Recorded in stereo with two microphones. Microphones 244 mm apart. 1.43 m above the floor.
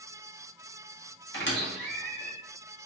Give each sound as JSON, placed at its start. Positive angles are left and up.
{"t": 1.3, "sound": "a squeak", "side_deg": 50, "distance_m": 1.0}